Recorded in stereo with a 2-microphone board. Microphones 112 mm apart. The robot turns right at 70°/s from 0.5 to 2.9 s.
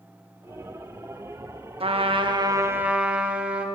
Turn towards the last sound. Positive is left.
turn(degrees=-10)